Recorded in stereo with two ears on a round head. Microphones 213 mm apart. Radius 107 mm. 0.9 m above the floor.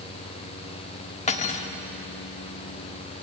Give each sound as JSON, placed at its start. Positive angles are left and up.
{"t": 1.3, "sound": "cutlery clinking", "side_deg": 30, "distance_m": 1.2}